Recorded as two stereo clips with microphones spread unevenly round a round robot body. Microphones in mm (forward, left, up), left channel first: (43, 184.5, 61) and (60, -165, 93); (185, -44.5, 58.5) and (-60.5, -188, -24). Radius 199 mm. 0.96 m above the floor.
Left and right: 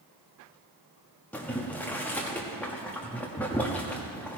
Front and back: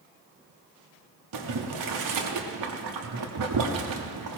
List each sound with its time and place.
1.3 s boiling: straight behind, 1.0 m